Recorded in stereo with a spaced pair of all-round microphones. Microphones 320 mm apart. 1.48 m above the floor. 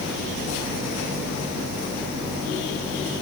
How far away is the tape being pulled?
No tape being pulled in this recording.